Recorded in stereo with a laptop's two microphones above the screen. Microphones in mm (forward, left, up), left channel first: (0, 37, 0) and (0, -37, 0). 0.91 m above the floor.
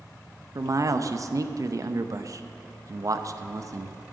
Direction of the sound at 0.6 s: 50° right (ahead or behind).